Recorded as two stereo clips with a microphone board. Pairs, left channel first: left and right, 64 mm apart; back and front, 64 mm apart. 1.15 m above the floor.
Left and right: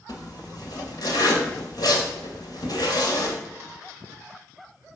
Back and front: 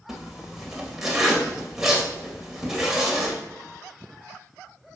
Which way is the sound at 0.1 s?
85° left.